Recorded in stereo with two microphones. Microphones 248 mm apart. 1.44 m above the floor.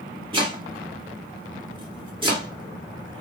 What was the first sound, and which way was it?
Chopping, 20° right (ahead or behind).